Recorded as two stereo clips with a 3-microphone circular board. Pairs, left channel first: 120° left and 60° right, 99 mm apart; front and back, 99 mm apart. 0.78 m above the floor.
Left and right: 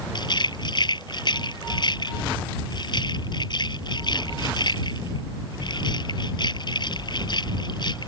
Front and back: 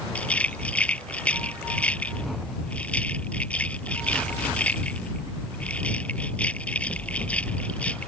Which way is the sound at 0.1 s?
80° left.